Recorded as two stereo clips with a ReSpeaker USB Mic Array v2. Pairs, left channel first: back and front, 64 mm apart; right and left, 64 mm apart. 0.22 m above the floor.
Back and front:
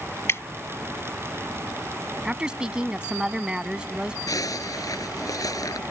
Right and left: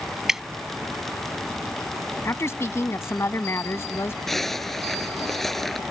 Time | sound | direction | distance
0.3 | dripping | 170° left | ?
2.2 | a woman speaking | 70° right | ?
4.3 | a zipper | 175° right | ?